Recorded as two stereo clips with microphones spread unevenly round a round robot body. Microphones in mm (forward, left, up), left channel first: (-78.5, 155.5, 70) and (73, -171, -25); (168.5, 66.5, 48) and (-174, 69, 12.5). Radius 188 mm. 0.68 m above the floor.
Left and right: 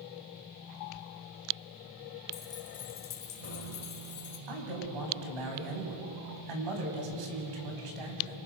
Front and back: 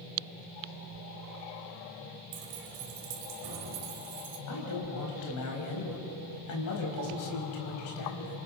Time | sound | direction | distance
2.3 | keys jangling | 175° right | 2.5 m
4.5 | a man speaking | 50° right | 5 m